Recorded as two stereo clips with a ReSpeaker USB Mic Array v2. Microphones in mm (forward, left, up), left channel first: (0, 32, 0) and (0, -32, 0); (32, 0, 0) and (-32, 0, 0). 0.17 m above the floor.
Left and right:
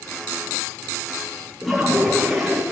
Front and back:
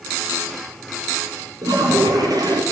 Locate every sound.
1.6 s a toilet flushing: 175° left, 6.5 m